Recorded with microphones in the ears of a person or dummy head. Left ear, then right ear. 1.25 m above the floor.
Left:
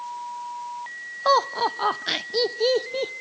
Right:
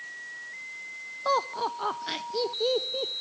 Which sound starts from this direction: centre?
Laughter, at 1.2 s.